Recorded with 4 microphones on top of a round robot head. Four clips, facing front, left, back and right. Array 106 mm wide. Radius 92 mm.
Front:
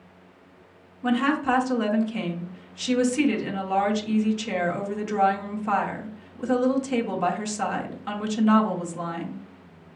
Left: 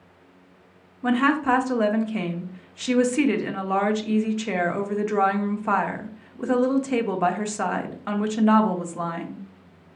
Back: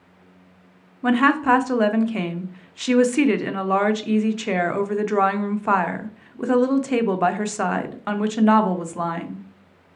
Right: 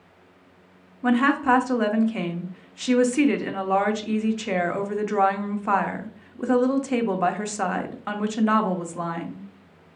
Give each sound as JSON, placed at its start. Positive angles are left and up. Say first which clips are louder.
{"t": 1.0, "sound": "a woman speaking", "louder": "right 1 dB, back 5 dB", "azimuth_deg": 180, "distance_m": 0.9}